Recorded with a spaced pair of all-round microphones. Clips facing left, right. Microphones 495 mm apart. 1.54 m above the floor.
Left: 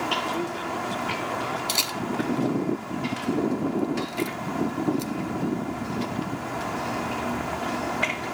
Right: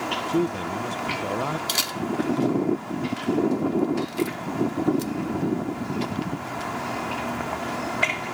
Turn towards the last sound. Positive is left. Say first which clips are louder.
# right 2 dB
turn(degrees=-35)  # may be behind; listen again after turning